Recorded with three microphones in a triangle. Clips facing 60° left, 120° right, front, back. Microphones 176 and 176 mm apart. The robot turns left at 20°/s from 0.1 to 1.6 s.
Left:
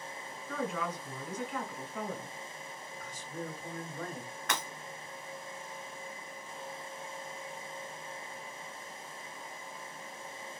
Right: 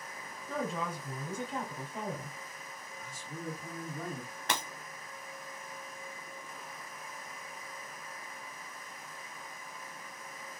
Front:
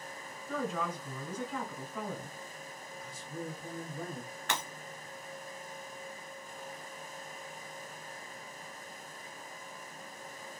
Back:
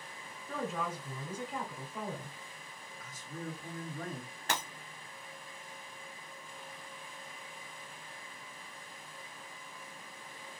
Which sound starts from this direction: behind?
Breaking glass, at 4.5 s.